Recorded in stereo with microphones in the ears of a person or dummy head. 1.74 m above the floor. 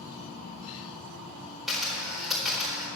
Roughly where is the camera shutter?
Centre.